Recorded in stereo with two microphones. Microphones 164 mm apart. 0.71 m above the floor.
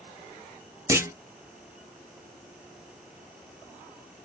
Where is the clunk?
20° right (ahead or behind), 0.6 m.